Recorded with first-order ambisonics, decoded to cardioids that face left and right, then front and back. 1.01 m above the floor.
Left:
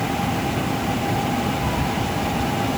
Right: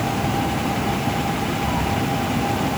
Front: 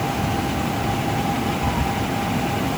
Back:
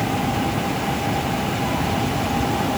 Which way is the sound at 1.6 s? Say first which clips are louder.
Right 1 dB, even; 35° left.